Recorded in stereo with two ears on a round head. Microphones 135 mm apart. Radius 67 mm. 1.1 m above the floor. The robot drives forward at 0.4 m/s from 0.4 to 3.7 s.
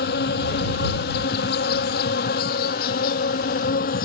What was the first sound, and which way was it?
An insect, 75° left (ahead or behind).